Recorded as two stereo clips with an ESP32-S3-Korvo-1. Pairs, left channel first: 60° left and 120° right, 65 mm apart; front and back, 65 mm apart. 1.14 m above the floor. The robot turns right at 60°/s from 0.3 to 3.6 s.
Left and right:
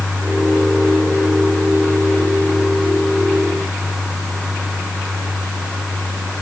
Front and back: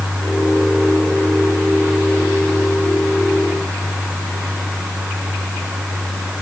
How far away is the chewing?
I don't hear chewing.